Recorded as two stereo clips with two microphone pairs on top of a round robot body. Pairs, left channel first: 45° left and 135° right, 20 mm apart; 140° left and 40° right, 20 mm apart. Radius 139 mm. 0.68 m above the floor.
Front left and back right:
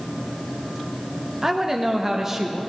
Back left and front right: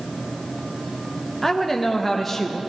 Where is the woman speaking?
170° right, 0.9 m.